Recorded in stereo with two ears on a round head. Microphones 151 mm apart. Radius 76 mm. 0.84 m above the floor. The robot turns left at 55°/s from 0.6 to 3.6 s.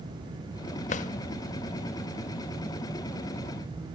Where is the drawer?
45° left (ahead or behind), 0.7 m; by 1.1 s 50° left (ahead or behind), 0.7 m.